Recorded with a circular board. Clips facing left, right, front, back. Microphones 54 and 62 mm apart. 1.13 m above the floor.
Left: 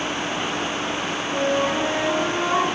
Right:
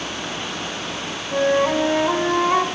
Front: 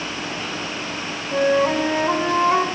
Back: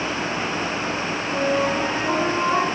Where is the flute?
40° right, 2.5 m.